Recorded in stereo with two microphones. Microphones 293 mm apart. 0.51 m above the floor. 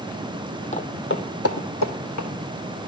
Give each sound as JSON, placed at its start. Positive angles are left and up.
{"t": 0.7, "sound": "footsteps", "side_deg": 25, "distance_m": 0.9}